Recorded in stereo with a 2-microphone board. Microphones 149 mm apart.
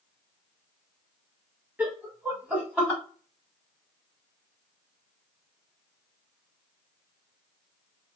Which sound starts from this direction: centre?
Laughter, at 1.8 s.